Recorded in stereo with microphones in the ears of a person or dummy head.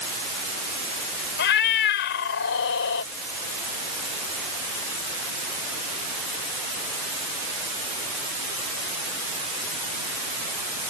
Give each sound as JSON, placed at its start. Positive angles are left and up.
{"t": 1.4, "sound": "a cat meowing", "side_deg": 65}